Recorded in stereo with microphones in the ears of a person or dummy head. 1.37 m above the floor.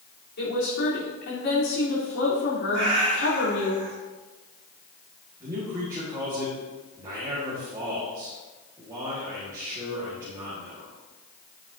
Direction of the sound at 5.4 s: 15° right (ahead or behind).